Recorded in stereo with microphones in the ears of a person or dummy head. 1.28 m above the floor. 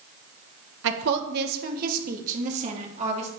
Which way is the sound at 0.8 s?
65° right (ahead or behind).